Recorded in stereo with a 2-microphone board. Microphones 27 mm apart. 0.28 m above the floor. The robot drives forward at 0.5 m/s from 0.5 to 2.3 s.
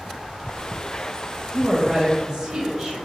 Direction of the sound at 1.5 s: 15° right (ahead or behind).